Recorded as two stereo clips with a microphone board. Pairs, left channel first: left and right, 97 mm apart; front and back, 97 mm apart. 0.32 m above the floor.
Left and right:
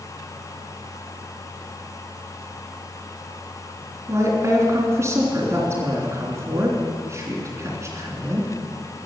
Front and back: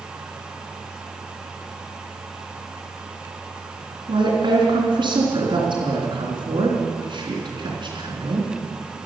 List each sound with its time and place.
4.1 s a woman speaking: 150° right, 3.5 m